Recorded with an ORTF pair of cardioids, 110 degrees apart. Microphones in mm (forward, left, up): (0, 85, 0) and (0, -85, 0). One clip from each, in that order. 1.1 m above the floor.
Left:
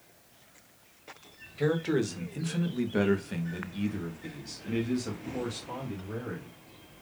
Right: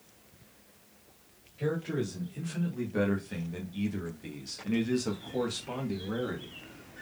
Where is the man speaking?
60° left, 1.6 m; by 6.5 s 45° right, 2 m.